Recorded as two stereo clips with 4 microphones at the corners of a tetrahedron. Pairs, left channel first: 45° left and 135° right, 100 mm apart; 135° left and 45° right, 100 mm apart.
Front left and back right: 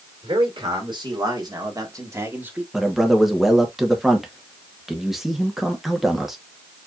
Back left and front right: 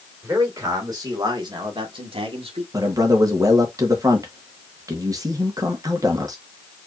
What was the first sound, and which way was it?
A man speaking, 105° right.